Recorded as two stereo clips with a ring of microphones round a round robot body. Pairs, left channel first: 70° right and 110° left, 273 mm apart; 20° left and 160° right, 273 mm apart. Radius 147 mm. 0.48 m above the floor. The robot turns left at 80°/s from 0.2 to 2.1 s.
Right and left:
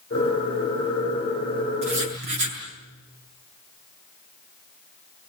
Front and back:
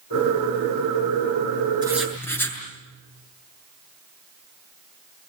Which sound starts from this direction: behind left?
Writing, at 1.8 s.